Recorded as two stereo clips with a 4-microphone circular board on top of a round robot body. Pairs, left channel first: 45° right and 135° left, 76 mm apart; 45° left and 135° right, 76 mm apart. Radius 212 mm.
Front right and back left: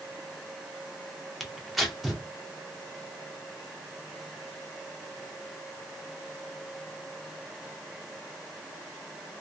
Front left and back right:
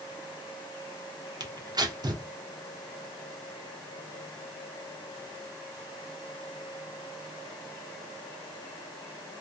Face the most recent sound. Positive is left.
turn(degrees=-135)